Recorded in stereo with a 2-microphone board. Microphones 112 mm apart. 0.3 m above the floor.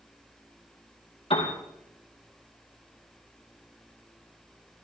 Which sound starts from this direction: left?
A piano, at 1.3 s.